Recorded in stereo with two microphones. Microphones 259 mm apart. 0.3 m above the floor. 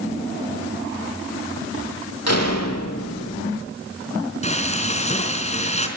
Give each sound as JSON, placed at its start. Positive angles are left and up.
{"t": 2.3, "sound": "a door slam", "side_deg": 65, "distance_m": 7.0}
{"t": 4.4, "sound": "frying", "side_deg": 25, "distance_m": 4.0}